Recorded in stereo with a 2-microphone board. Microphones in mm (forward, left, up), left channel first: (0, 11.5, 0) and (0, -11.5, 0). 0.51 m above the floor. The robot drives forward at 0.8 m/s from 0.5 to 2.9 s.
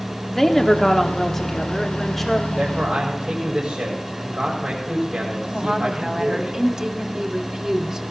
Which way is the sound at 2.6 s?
65° right (ahead or behind).